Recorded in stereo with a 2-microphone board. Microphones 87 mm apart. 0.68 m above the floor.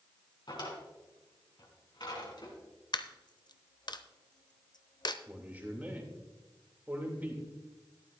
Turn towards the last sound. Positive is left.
turn(degrees=-20)  # may be behind; listen again after turning